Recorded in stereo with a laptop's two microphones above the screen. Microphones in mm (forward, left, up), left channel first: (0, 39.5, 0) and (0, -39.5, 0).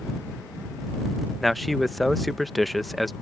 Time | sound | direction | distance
1.4 | a man speaking | centre (ahead or behind) | ?